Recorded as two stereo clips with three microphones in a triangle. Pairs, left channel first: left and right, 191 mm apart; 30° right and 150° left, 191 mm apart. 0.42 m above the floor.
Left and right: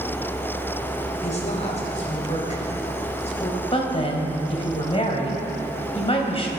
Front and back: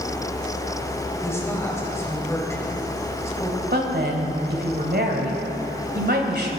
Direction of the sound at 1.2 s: 45° left.